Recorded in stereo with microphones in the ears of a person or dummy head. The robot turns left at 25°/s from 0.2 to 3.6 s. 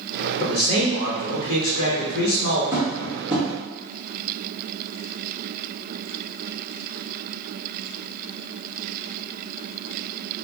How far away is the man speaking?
About 1.4 m.